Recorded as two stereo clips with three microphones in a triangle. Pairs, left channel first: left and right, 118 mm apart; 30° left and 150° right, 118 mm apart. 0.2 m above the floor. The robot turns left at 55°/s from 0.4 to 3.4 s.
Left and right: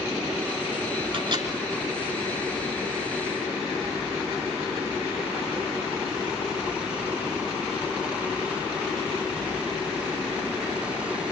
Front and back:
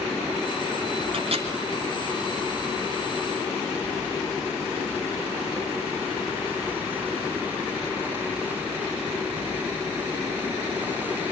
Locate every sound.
1.1 s a microwave: 120° right, 2.5 m; by 1.5 s 140° right, 2.5 m